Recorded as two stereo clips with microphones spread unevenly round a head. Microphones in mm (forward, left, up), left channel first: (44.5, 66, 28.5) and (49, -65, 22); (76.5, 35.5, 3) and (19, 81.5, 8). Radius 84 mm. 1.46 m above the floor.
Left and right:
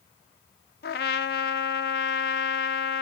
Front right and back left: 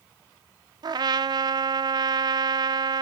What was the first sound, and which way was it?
A trumpet, 115° left.